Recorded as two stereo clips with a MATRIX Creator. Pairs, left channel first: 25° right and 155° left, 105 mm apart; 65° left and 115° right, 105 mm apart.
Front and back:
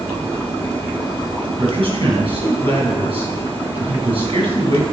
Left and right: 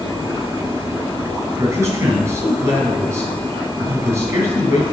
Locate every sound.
1.6 s a man speaking: 175° right, 5.5 m